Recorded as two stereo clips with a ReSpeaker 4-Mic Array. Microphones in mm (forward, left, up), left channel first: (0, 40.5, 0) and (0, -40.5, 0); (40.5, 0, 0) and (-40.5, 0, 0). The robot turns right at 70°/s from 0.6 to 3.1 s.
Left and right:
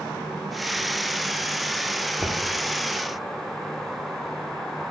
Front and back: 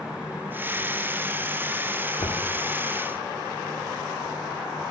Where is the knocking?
20° left, 1.4 m; by 2.4 s 40° left, 1.4 m.